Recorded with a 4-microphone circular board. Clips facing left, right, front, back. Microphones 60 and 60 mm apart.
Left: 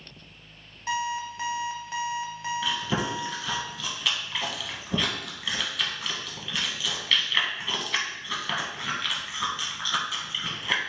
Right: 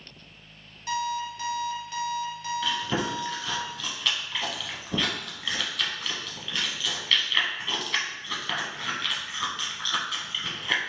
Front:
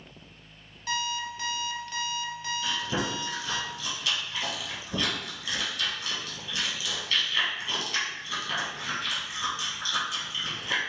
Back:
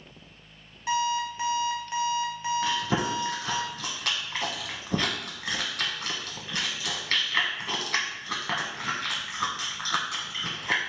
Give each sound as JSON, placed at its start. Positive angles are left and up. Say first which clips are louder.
{"t": 0.9, "sound": "an alarm clock", "louder": "even, back 5 dB", "azimuth_deg": 130, "distance_m": 0.7}
{"t": 2.6, "sound": "chewing", "louder": "right 1 dB, back 1 dB", "azimuth_deg": 175, "distance_m": 1.0}